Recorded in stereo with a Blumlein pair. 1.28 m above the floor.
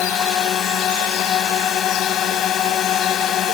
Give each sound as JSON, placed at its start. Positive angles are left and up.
{"t": 0.0, "sound": "a drone", "azimuth_deg": 30}